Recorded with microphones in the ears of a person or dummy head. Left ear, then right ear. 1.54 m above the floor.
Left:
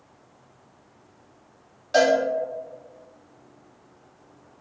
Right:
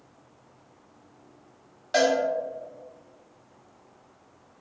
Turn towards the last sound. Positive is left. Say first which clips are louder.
# left 4 dB
turn(degrees=-15)  # may be behind; listen again after turning